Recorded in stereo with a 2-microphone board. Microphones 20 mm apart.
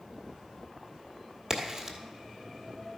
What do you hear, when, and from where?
1.5 s a crack: 25° right (ahead or behind), 1.5 m